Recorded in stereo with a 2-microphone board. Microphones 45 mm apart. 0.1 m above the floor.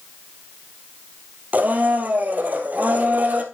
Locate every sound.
1.5 s a blender: 40° right (ahead or behind), 1.8 m